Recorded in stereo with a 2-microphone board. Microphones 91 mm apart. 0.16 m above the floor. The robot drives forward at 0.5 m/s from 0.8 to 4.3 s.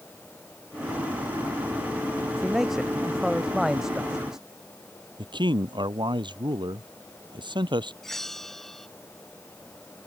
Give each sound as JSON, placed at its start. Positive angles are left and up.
{"t": 2.4, "sound": "a man speaking", "side_deg": -5}
{"t": 5.2, "sound": "a man speaking", "side_deg": -55}
{"t": 8.0, "sound": "a bell", "side_deg": 5}